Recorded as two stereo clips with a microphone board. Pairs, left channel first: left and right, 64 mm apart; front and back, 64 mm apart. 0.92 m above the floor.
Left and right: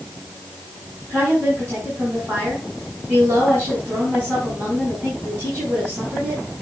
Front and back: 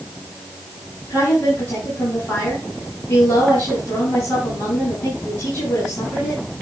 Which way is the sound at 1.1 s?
25° right.